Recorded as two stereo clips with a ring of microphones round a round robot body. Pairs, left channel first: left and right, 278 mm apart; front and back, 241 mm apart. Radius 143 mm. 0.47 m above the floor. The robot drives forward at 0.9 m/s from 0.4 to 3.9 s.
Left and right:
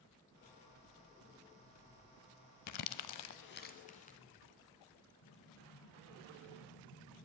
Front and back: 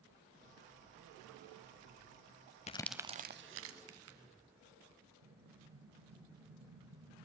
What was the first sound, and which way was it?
Crumpling, 60° left.